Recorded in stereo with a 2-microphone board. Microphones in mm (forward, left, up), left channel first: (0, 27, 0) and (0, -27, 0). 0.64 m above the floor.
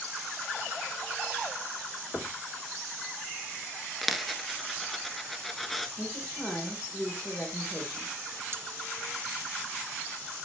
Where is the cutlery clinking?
50° right (ahead or behind), 0.8 m.